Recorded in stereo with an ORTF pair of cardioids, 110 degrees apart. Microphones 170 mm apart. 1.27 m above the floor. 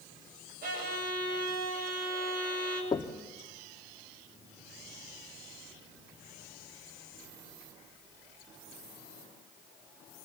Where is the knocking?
25° left, 1.6 m.